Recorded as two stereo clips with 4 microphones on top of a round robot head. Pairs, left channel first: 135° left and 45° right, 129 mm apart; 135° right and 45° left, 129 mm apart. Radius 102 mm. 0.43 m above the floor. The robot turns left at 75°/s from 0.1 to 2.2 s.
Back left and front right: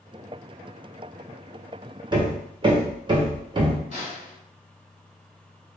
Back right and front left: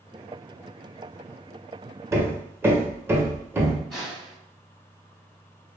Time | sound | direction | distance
2.1 | hammering | 10° right | 0.7 m
3.9 | a snare drum | 140° left | 1.3 m